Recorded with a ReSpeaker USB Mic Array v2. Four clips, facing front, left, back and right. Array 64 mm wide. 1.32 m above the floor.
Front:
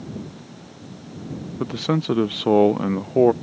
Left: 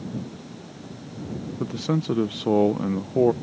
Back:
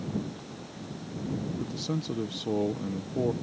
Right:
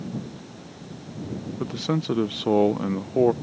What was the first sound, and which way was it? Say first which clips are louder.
A man speaking: left 1 dB, front 10 dB; 5° right.